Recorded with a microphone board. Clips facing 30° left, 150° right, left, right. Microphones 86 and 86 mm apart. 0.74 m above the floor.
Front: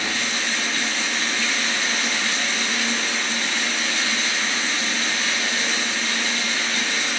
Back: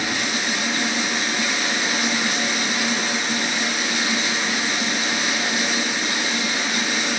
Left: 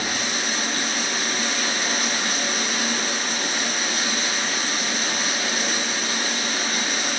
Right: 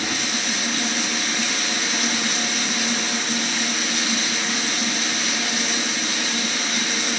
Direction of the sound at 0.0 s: 135° left.